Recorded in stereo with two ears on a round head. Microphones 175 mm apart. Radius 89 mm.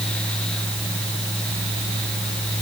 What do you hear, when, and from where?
Only background noise.